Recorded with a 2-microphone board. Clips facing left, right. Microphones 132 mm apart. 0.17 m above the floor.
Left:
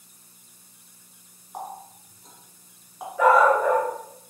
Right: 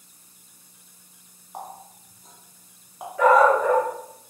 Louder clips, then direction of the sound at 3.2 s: Right 1 dB; 10° left (ahead or behind).